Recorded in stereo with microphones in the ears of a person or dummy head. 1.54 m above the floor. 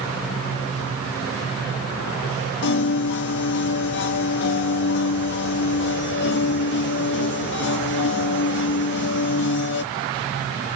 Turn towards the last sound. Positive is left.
turn(degrees=65)  # may be behind; listen again after turning